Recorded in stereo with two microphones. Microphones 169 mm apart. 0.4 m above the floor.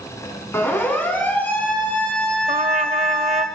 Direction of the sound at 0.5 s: 15° left (ahead or behind).